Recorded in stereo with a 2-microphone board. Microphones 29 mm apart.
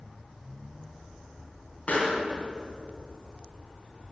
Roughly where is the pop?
Left.